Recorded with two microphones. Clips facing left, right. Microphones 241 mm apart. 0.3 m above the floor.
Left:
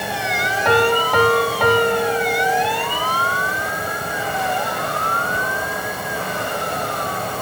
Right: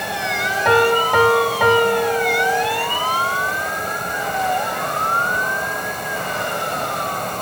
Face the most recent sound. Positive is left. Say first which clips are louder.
# right 1 dB
turn(degrees=-5)  # may be behind; listen again after turning